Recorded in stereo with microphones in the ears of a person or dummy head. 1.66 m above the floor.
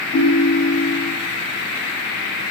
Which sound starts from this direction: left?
A ringtone, at 0.1 s.